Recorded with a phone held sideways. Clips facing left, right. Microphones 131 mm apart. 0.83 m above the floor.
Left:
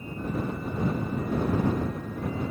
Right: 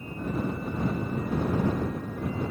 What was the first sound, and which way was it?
Only background noise.